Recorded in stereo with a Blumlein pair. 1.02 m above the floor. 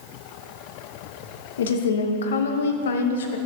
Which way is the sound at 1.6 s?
65° left.